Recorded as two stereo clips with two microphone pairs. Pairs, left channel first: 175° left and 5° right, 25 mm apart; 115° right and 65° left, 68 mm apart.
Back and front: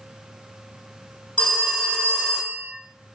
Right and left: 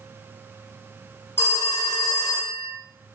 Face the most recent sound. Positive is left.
turn(degrees=-175)